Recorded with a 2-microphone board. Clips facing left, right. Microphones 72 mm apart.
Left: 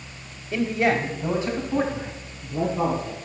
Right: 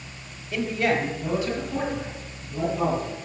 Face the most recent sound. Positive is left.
turn(degrees=35)  # may be behind; listen again after turning